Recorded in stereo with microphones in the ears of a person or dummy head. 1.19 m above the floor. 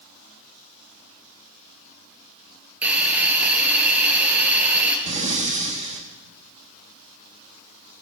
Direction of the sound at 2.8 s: 10° right (ahead or behind).